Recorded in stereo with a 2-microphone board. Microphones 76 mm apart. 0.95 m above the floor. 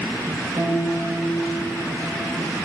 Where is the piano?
35° right (ahead or behind), 0.9 m.